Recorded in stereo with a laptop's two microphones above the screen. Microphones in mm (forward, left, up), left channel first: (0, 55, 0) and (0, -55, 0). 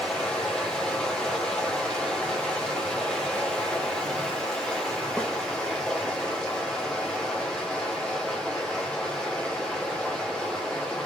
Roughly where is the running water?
Centre.